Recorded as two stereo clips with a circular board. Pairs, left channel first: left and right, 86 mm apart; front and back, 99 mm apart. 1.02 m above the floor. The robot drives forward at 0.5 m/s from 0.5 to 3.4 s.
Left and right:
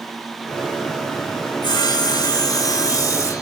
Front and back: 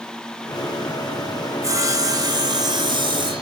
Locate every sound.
1.6 s sawing: 125° left, 1.4 m; by 3.4 s 145° left, 2 m